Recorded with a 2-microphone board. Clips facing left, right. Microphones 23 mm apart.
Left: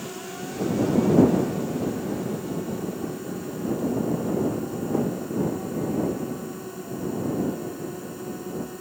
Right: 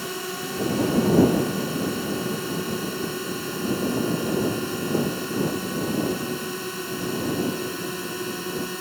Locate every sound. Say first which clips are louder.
0.0 s a drone: right 4 dB; 85° right